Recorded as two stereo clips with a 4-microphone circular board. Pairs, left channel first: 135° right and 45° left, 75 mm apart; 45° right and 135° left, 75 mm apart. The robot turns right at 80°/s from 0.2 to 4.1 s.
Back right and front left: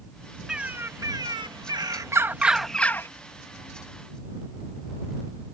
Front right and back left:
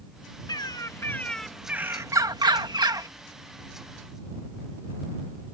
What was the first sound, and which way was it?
A bird, 35° right.